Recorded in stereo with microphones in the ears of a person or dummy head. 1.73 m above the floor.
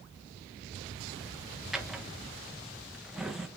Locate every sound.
1.7 s a drawer: centre (ahead or behind), 1.1 m